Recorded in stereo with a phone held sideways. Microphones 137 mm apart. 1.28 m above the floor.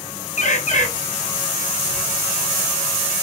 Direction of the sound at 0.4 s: 60° left (ahead or behind).